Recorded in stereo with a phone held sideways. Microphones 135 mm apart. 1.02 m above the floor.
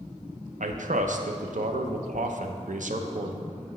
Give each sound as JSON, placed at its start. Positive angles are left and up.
{"t": 0.6, "sound": "a man speaking", "side_deg": -70, "distance_m": 0.5}